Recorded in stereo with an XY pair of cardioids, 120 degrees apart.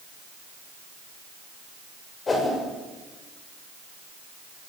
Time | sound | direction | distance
2.3 | a whoosh | 30° left | 7 m